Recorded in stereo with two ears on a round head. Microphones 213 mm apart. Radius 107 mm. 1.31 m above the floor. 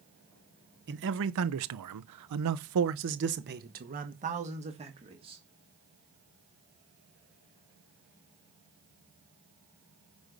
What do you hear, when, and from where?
0.9 s a man speaking: 45° right (ahead or behind), 0.9 m; by 5.4 s 20° right (ahead or behind), 1.9 m